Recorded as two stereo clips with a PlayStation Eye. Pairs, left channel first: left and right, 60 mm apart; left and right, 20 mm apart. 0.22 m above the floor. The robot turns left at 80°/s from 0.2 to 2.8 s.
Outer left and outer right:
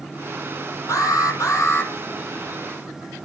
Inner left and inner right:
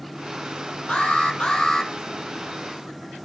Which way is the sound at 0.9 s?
110° left.